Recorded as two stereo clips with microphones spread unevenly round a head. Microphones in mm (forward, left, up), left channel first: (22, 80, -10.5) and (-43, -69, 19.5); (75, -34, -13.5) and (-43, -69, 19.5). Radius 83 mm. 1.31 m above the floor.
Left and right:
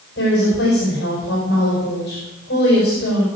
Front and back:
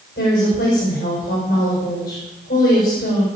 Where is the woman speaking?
35° left, 5.5 m.